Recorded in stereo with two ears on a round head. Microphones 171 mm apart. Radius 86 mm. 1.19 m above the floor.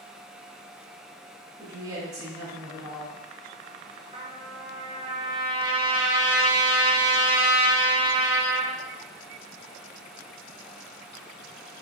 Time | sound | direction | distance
1.6 | a woman speaking | 20° right (ahead or behind) | 1.3 m
4.1 | a trumpet | 25° right (ahead or behind) | 0.5 m